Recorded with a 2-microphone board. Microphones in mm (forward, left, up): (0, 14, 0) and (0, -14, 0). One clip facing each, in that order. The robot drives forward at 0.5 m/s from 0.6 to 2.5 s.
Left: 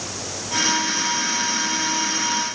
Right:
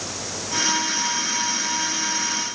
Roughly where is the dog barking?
No dog barking in this recording.